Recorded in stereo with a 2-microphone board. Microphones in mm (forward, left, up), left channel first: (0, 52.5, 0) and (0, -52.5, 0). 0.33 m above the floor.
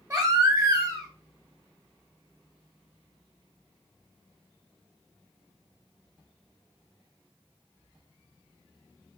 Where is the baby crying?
35° right (ahead or behind), 0.9 m.